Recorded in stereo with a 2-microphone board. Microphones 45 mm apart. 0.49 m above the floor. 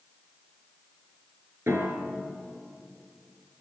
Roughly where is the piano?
Right.